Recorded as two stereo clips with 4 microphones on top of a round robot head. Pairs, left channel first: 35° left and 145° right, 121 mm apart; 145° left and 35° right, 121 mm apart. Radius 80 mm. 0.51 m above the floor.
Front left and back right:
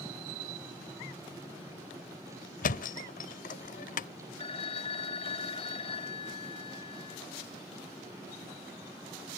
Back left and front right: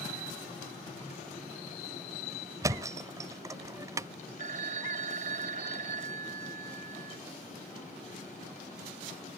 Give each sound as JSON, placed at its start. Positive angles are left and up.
{"t": 2.6, "sound": "a thud", "azimuth_deg": 30}
{"t": 4.4, "sound": "a phone ringing", "azimuth_deg": -10}